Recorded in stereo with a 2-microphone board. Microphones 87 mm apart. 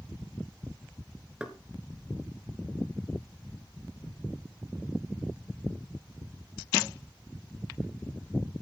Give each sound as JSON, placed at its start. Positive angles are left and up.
{"t": 1.4, "sound": "knocking", "side_deg": -10, "distance_m": 1.8}